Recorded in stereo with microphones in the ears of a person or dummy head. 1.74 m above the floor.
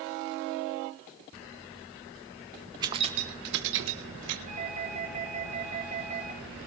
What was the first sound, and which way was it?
Keys jangling, 25° right (ahead or behind).